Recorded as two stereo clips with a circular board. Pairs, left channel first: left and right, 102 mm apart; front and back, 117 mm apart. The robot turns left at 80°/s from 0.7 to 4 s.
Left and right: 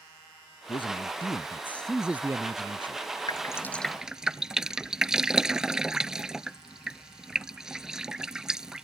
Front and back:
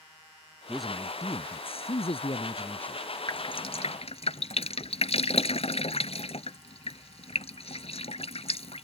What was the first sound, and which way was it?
A man speaking, 100° left.